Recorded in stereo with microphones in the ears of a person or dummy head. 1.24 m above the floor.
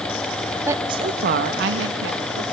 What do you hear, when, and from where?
0.7 s a woman speaking: 15° right (ahead or behind), 1.3 m; by 2.4 s 85° right, 2.5 m